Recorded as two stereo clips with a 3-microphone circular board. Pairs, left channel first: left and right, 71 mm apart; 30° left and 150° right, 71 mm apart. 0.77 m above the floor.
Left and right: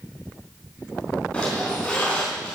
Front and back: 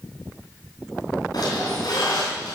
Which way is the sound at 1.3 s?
15° left.